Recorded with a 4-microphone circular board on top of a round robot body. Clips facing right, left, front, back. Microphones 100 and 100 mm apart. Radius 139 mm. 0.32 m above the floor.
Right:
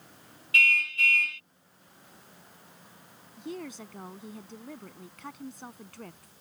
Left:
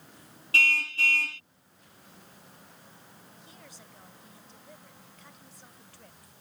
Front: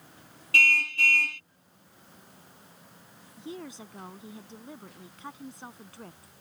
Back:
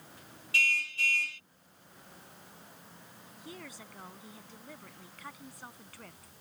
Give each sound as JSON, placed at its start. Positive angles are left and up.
{"t": 0.5, "sound": "a car horn", "azimuth_deg": 35}
{"t": 3.4, "sound": "a woman speaking", "azimuth_deg": -65}